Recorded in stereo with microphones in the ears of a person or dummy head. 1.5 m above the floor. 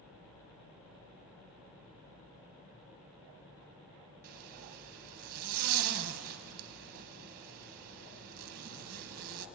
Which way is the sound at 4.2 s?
40° right (ahead or behind).